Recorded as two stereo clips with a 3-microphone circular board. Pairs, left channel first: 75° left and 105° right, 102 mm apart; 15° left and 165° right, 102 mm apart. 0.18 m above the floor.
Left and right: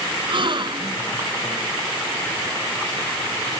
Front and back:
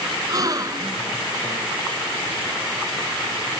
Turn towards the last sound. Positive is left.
turn(degrees=-125)